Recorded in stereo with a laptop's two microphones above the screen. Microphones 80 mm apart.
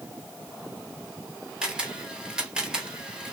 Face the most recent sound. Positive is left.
turn(degrees=-10)  # may be behind; listen again after turning